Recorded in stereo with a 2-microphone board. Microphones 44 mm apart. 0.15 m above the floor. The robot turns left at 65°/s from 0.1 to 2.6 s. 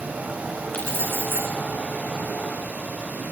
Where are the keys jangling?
130° left, 8.5 m; by 1.5 s 80° left, 8.5 m.